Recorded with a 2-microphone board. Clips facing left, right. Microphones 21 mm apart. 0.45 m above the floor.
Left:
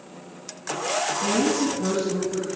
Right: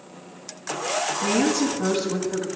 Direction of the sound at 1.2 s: 50° right (ahead or behind).